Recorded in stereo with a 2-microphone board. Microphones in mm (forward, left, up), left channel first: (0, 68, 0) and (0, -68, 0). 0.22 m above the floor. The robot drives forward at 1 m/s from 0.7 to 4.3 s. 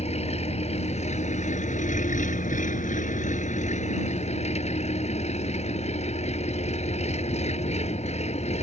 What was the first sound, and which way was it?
An engine running, 50° left (ahead or behind).